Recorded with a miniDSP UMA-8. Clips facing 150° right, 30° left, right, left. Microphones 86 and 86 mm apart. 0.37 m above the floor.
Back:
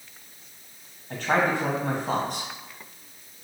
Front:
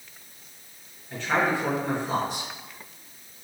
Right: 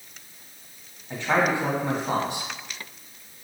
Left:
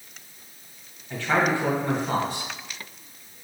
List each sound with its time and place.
1.1 s a man speaking: 155° right, 1.8 m